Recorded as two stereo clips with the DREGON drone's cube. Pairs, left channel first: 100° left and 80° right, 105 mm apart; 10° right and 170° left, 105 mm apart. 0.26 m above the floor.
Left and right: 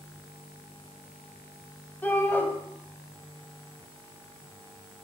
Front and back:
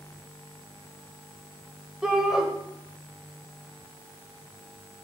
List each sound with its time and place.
2.0 s a shout: 100° left, 0.9 m